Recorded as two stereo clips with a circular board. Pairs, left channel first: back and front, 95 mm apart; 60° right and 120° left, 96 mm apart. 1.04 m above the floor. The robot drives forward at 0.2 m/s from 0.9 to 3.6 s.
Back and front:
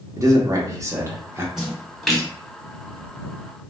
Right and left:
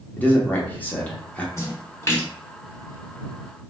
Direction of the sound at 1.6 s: 80° right.